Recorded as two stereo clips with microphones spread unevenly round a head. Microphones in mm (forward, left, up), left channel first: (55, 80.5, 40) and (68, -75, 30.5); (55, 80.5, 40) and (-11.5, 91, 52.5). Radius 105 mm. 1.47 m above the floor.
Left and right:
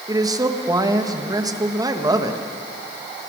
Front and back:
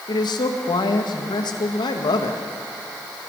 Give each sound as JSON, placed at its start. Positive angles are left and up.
{"t": 0.1, "sound": "a man speaking", "azimuth_deg": -20, "distance_m": 2.0}